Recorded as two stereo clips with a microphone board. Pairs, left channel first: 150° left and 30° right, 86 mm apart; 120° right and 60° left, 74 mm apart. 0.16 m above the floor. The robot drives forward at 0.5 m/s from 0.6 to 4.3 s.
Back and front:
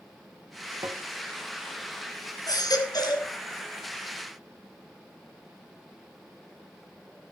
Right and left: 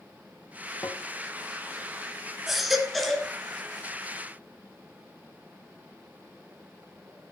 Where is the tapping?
75° right, 0.7 m; by 1.0 s 85° right, 0.7 m.